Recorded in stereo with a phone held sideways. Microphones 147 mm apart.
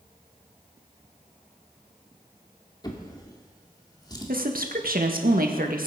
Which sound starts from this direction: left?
A drawer, at 2.8 s.